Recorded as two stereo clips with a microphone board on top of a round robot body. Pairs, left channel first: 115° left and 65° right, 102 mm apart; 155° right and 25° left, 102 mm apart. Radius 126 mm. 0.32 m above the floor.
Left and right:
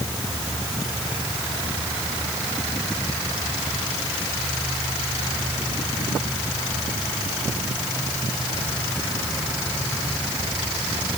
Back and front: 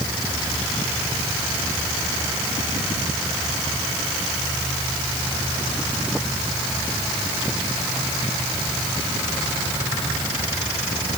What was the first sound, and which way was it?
Only background noise.